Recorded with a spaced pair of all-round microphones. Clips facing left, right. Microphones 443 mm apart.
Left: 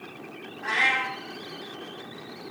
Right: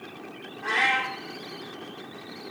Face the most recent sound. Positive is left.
turn(degrees=-55)  # may be behind; listen again after turning